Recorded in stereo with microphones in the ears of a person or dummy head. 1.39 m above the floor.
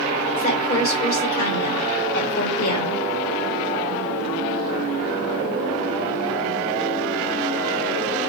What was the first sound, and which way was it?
A woman speaking, 45° left (ahead or behind).